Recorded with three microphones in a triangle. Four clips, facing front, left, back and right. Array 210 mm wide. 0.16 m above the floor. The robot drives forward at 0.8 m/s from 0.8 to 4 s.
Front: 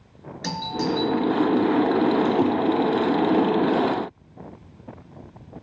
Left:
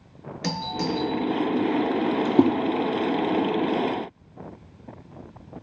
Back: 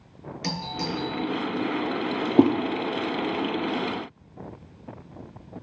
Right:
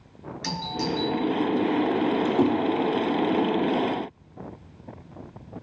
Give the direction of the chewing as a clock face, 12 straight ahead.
No chewing in this recording.